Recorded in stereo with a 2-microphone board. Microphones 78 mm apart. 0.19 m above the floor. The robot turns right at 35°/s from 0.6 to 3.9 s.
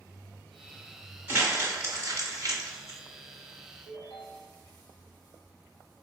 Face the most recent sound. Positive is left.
turn(degrees=60)  # may be behind; listen again after turning